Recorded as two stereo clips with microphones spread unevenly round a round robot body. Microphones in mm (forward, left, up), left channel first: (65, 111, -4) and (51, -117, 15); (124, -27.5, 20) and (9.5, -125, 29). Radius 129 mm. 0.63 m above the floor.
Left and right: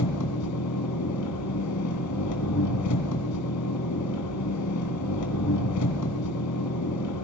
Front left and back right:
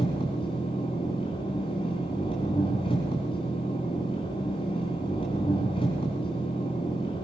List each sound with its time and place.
0.0 s an engine running: 110° left, 2.5 m